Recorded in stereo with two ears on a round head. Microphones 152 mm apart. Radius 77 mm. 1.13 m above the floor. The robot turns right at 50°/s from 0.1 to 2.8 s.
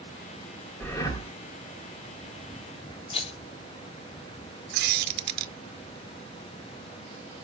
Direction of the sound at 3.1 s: 35° left (ahead or behind).